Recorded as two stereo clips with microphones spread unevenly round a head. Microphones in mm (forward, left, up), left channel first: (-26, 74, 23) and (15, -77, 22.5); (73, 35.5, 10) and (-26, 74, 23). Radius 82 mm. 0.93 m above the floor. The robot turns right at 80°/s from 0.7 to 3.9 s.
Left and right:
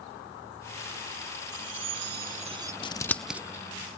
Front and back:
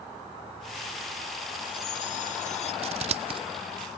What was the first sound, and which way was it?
A chime, 95° right.